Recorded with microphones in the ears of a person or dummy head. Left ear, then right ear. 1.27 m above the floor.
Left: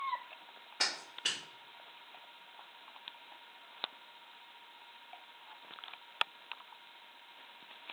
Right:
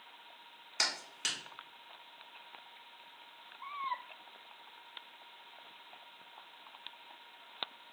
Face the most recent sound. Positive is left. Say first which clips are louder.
# even
turn(degrees=-80)